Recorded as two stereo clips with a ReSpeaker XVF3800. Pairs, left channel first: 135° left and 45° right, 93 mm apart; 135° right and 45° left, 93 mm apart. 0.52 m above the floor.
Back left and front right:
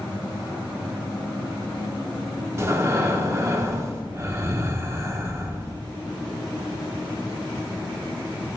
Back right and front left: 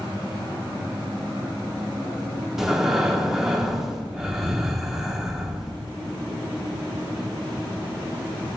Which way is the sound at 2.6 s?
35° right.